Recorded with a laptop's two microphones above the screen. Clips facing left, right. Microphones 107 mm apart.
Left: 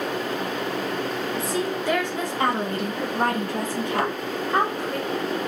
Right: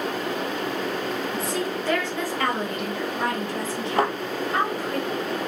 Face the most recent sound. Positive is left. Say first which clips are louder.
# right 4 dB
turn(degrees=-35)  # may be behind; listen again after turning